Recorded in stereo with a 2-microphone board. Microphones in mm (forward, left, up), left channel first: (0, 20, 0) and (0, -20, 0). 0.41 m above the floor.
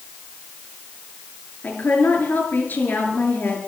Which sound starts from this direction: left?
A woman speaking, at 1.6 s.